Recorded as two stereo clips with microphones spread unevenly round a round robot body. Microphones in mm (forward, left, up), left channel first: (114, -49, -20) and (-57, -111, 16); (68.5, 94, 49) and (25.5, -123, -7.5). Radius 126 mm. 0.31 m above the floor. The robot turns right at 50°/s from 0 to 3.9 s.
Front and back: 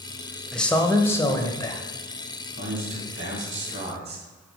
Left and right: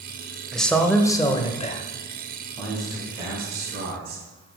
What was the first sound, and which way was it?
A man speaking, 40° right.